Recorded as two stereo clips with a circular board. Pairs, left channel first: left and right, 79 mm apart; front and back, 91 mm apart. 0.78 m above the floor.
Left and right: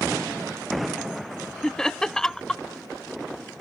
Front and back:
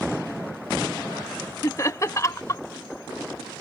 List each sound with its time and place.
1.6 s laughter: 10° left